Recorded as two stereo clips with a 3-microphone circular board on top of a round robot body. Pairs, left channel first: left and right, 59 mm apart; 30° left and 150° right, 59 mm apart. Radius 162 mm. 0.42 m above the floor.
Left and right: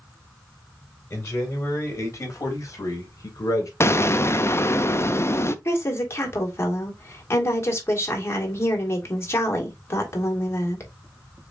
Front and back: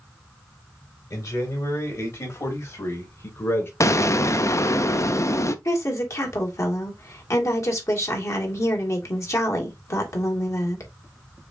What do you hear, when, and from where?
1.1 s a man speaking: 50° left, 4 m; by 3.7 s 70° left, 3 m
3.8 s an explosion: 55° left, 0.7 m
5.7 s a woman speaking: 50° left, 2 m